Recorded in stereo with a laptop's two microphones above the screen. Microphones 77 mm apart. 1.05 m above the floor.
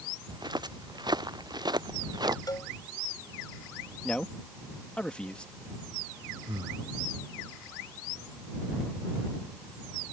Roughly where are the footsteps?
Right.